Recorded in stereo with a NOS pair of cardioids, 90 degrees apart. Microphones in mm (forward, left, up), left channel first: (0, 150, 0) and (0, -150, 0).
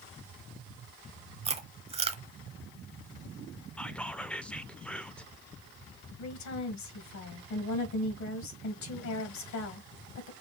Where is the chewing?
20° right, 0.9 m.